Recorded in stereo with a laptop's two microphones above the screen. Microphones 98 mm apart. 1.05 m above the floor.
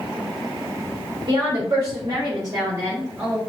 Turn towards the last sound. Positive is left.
turn(degrees=-5)  # may be behind; listen again after turning